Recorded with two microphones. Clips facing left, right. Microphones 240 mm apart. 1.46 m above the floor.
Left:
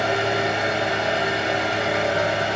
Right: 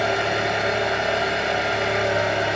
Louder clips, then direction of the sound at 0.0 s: Left 1 dB; 30° left (ahead or behind).